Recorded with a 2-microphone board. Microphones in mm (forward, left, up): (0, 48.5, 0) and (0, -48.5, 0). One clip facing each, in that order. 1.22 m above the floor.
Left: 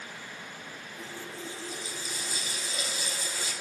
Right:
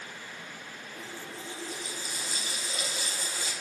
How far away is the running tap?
About 5.5 m.